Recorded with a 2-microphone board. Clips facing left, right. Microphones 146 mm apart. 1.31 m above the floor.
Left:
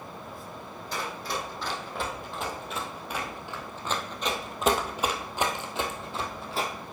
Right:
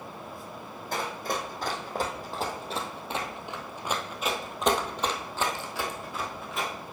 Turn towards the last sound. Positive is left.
turn(degrees=35)  # may be behind; listen again after turning